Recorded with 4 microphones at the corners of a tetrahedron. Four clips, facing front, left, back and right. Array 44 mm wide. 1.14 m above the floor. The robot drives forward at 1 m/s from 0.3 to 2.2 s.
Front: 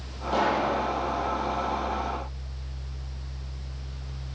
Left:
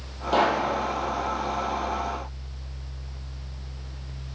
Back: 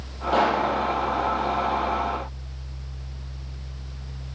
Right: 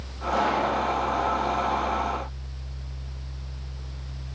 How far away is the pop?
About 9.5 m.